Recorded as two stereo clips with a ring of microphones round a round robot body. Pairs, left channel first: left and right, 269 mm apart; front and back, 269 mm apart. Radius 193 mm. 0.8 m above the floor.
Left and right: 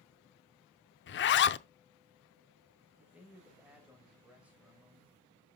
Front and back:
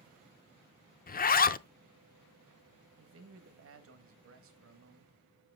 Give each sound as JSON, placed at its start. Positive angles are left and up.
{"t": 1.1, "sound": "a zipper", "azimuth_deg": 50, "distance_m": 0.5}
{"t": 3.0, "sound": "a man speaking", "azimuth_deg": -175, "distance_m": 1.4}